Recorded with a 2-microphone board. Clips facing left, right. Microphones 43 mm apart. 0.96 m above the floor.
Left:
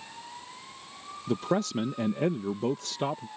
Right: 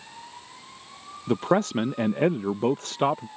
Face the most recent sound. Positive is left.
turn(degrees=-40)  # may be behind; listen again after turning